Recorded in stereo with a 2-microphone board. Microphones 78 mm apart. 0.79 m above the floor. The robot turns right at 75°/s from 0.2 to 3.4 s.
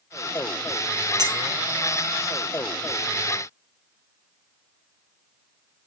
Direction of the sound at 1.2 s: 50° right (ahead or behind).